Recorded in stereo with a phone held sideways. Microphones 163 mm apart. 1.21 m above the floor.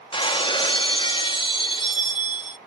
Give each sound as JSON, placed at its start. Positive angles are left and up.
{"t": 0.1, "sound": "breaking glass", "side_deg": 30}